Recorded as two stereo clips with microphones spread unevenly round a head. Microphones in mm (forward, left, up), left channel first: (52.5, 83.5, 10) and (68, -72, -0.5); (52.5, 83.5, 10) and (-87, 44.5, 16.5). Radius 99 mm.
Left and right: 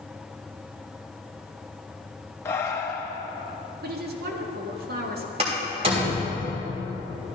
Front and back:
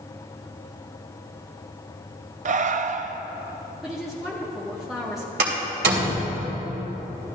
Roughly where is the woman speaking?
Right.